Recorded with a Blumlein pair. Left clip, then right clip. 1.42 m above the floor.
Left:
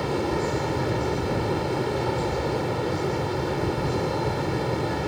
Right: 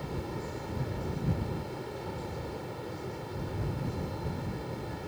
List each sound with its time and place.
0.0 s a fan: 35° left